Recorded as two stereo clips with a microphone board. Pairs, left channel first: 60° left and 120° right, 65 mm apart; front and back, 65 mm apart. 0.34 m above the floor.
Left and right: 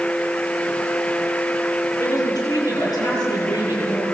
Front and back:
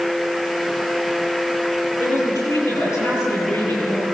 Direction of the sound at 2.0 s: 35° left.